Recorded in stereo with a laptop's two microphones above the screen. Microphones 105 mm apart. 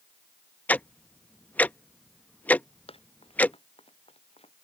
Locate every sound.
0.7 s ticking: 15° left (ahead or behind)
2.9 s running footsteps: 65° left (ahead or behind); by 4.5 s 75° left (ahead or behind)